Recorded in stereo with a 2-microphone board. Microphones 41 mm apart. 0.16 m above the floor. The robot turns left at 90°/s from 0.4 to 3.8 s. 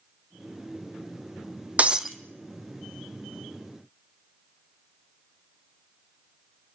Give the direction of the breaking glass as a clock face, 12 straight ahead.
5 o'clock.